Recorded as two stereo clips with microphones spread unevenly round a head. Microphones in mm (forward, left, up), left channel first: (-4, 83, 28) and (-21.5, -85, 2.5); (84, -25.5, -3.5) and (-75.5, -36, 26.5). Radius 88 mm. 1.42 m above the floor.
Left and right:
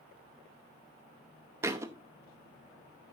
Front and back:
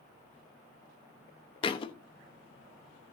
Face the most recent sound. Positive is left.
turn(degrees=-25)